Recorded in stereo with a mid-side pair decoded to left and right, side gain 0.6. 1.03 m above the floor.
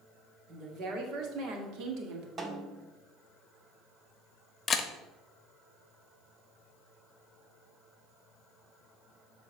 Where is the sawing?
No sawing in this recording.